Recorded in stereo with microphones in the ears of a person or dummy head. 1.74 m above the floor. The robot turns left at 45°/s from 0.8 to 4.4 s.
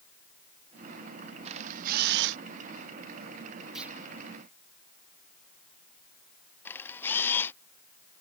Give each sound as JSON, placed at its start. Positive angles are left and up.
{"t": 1.4, "sound": "a camera shutter", "azimuth_deg": -35}
{"t": 3.8, "sound": "a clunk", "side_deg": -5}
{"t": 6.7, "sound": "a camera shutter", "side_deg": 15}